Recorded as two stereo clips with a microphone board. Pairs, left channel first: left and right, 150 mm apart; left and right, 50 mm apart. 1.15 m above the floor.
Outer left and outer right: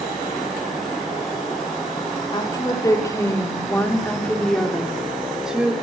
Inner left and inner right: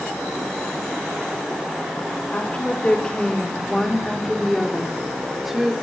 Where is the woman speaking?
30° left (ahead or behind), 3.5 m; by 5.7 s 5° right (ahead or behind), 4 m.